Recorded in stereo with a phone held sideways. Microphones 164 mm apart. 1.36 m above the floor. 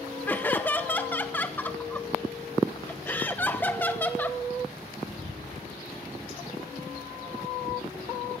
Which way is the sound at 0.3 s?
10° left (ahead or behind).